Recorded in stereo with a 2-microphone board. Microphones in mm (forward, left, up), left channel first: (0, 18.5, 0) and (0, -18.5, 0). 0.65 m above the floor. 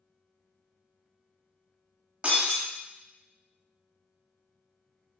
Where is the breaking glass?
35° right (ahead or behind), 1.4 m.